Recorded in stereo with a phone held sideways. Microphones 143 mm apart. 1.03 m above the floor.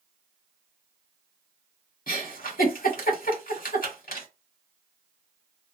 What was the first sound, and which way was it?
A giggle, 75° left (ahead or behind).